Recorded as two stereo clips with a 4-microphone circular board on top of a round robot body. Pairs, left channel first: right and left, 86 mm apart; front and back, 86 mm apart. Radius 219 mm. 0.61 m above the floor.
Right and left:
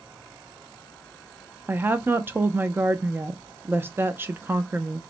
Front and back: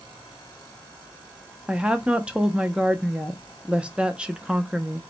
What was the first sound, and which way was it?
A woman speaking, 115° left.